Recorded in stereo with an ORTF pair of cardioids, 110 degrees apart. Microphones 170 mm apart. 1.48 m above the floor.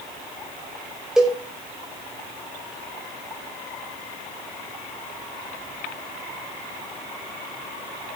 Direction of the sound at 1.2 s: 5° right.